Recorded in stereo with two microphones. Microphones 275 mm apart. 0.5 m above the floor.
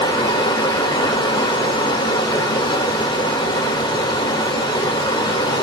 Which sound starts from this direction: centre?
Running water, at 0.0 s.